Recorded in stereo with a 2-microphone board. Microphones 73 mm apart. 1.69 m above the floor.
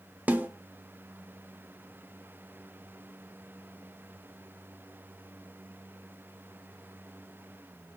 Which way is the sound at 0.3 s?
20° right (ahead or behind).